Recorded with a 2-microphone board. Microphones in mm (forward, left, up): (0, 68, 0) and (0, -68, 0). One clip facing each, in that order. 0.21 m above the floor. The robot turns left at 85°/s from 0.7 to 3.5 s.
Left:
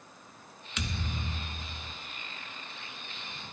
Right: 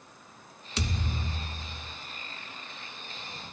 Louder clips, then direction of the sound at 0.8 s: Right 3 dB; 145° right.